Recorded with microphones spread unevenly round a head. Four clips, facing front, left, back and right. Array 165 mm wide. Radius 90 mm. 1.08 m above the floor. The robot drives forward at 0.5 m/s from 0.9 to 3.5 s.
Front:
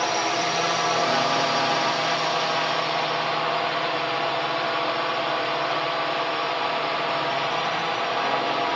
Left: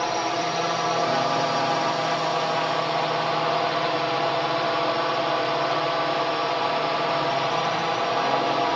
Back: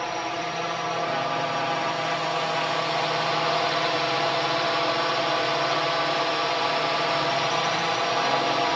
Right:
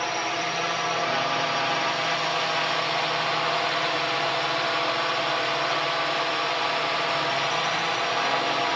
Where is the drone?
55° left; by 8.8 s 110° left.